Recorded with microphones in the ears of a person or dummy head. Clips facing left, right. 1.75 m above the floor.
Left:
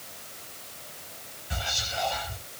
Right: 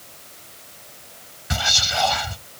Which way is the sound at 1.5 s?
80° right.